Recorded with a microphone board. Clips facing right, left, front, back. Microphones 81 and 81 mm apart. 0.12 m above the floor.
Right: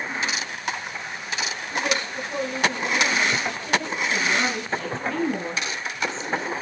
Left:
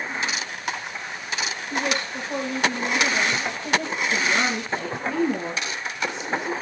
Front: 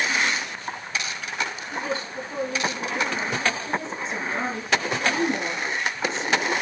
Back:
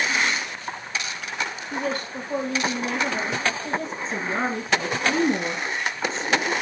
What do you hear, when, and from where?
1.7 s a woman speaking: 140° left, 4.5 m
4.0 s a woman speaking: 160° left, 1.8 m